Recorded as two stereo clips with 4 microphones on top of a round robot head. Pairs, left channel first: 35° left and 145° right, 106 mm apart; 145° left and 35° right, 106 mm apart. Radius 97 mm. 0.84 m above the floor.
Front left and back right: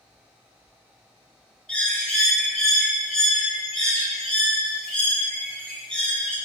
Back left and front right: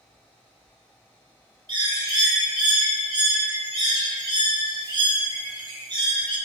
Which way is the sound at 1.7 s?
45° right.